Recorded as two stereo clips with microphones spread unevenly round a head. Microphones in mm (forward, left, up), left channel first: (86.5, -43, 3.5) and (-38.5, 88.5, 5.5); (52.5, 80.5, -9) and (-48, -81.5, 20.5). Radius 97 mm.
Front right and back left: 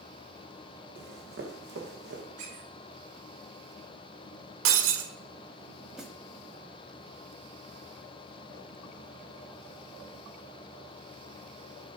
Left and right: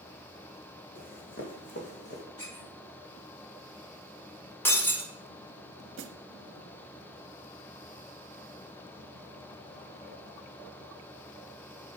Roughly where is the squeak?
Behind left.